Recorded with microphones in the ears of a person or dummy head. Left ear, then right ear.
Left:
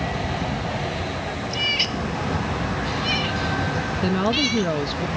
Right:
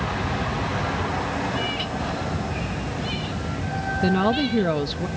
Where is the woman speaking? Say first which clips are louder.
Even; 5° left (ahead or behind).